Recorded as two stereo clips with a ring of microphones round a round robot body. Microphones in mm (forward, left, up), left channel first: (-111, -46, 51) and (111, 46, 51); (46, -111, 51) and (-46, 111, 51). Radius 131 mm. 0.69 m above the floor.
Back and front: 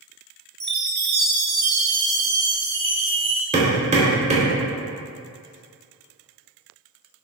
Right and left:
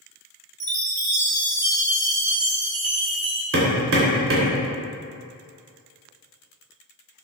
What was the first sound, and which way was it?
A chime, 90° left.